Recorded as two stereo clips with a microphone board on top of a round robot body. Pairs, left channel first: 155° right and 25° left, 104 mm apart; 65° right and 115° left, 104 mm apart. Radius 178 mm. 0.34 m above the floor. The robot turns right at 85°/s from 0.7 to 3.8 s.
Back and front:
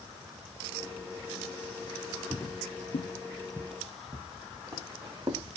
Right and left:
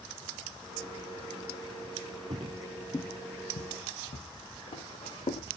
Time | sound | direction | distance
2.3 | footsteps | 120° left | 0.5 m